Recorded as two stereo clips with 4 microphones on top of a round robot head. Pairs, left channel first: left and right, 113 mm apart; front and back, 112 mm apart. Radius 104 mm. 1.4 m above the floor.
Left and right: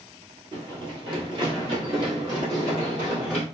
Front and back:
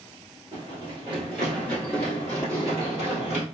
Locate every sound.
0.5 s running footsteps: 115° right, 1.9 m; by 3.4 s 10° right, 1.6 m